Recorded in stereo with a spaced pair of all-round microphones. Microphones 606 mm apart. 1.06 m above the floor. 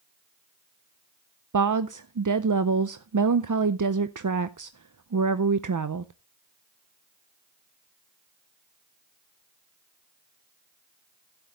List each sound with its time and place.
1.5 s a woman speaking: 35° right (ahead or behind), 0.5 m